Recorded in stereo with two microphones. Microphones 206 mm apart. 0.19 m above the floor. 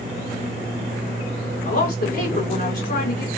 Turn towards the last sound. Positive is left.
turn(degrees=50)  # may be behind; listen again after turning